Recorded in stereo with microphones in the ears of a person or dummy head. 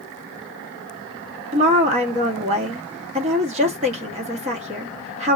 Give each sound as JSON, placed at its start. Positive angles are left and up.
{"t": 1.5, "sound": "a woman speaking", "side_deg": -30, "distance_m": 1.1}